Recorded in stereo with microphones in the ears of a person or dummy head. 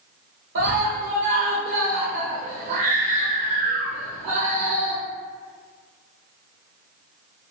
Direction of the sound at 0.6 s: 70° right (ahead or behind).